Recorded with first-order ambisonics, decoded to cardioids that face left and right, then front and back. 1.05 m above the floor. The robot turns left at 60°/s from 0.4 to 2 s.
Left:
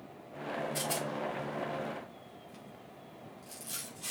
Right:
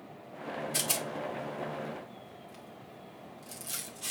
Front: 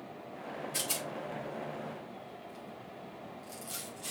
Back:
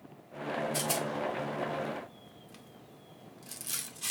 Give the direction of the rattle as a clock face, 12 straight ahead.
3 o'clock.